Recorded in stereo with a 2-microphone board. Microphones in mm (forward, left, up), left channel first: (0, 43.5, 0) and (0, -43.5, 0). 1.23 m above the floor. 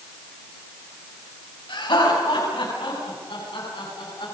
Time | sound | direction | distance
1.7 | laughter | 75° left (ahead or behind) | 9 m